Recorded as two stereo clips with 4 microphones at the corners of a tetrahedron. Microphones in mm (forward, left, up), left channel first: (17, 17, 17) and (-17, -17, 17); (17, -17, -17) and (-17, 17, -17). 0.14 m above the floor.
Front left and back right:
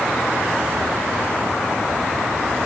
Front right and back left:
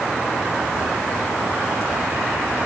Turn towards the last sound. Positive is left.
No sound to turn to.